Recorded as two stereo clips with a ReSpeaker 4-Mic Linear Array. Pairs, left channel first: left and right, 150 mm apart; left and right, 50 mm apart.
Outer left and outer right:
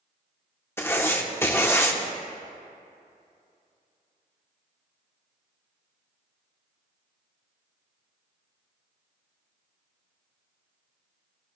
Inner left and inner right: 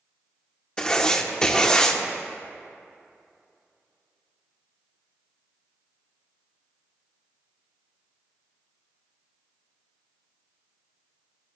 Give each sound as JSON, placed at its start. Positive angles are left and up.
{"t": 0.8, "sound": "writing", "side_deg": 15, "distance_m": 0.9}